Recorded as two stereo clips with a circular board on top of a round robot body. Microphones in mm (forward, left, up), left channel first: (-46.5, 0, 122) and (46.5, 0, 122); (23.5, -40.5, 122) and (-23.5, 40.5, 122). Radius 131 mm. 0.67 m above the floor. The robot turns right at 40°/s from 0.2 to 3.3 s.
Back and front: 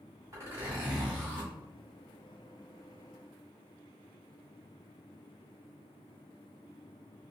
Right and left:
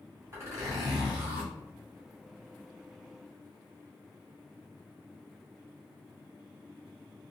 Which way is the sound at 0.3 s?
55° left.